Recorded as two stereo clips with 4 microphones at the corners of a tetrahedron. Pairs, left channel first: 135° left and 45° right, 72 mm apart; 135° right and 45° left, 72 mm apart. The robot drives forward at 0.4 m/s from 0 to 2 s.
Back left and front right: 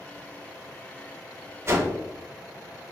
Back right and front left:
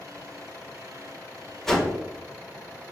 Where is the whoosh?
50° right, 0.7 m; by 1.9 s 65° right, 0.7 m.